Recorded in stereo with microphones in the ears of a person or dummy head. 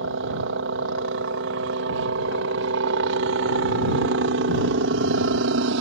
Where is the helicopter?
65° right (ahead or behind).